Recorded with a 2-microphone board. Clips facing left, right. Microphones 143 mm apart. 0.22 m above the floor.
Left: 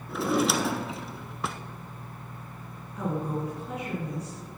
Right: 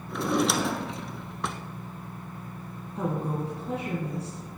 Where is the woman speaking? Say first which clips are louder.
Right 1 dB; 30° right (ahead or behind), 2 m.